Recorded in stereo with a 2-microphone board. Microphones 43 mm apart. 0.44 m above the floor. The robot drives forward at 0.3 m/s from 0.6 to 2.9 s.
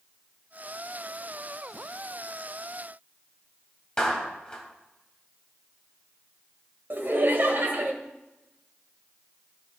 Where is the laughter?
50° right (ahead or behind), 1.9 m.